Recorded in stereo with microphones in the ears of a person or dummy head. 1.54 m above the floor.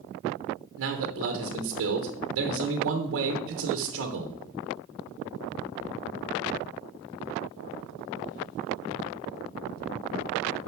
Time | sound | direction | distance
0.8 | a man speaking | 75° right (ahead or behind) | 1.3 m